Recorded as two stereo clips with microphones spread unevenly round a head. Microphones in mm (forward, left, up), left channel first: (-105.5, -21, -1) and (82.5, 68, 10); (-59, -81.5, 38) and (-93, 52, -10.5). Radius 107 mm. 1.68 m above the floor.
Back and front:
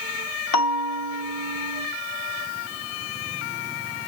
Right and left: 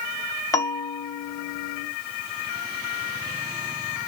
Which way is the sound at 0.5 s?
140° right.